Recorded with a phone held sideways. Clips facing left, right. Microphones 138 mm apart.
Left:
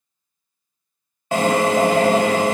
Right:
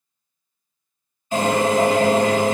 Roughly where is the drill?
Left.